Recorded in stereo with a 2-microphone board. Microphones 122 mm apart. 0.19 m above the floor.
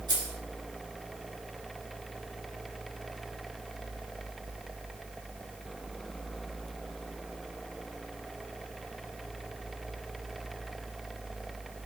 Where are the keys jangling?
40° right (ahead or behind), 2 m.